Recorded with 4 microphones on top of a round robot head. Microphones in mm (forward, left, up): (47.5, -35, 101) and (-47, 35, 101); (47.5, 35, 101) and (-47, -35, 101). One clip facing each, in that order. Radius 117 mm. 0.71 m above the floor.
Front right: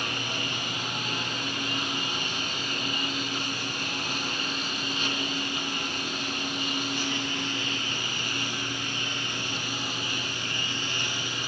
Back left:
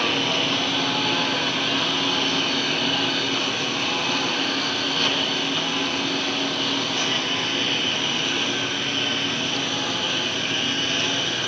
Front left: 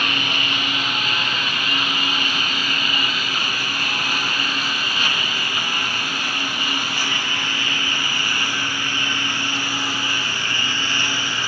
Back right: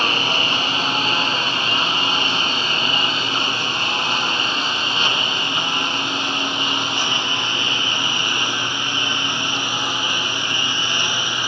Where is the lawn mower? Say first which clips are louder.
Back left 10 dB, back right 4 dB; 155° left; by 11.5 s 145° left.